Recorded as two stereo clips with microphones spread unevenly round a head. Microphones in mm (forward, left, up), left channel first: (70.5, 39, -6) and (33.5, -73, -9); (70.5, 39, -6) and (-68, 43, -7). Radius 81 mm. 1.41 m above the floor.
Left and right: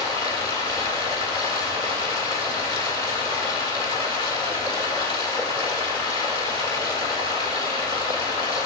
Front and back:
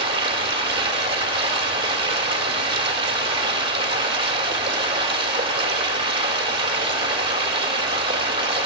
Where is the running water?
130° left, 1.7 m.